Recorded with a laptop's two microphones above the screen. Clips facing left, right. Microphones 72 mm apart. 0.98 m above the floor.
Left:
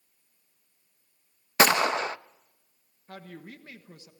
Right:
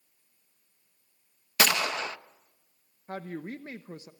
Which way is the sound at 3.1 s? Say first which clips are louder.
Right 7 dB; 30° right (ahead or behind).